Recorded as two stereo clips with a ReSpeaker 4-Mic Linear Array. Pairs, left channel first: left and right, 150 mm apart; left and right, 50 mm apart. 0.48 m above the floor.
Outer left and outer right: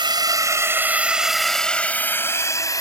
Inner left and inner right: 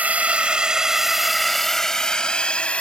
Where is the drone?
30° right (ahead or behind); by 2.8 s 25° left (ahead or behind).